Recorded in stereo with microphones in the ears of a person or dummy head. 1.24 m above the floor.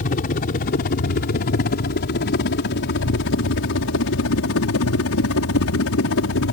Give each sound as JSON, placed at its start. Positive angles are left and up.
{"t": 0.0, "sound": "a helicopter", "side_deg": 45}